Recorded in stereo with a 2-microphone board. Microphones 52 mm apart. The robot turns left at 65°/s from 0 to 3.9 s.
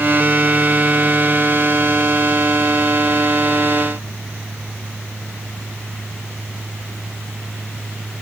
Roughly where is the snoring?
I don't hear snoring.